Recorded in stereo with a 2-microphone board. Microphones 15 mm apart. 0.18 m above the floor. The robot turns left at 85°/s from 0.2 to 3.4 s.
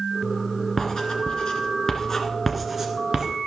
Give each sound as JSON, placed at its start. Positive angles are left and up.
{"t": 0.8, "sound": "writing", "side_deg": 30, "distance_m": 1.6}